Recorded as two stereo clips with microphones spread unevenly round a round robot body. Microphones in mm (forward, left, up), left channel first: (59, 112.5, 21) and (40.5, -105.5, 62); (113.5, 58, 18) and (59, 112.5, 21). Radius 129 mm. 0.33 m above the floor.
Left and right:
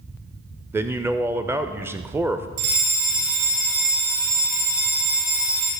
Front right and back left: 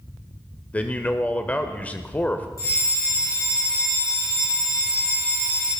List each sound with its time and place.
0.7 s a man speaking: 5° right, 0.9 m
2.6 s a fire alarm: 105° right, 6 m